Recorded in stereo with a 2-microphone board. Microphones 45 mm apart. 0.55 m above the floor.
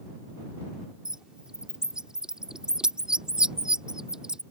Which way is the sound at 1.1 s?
15° right (ahead or behind).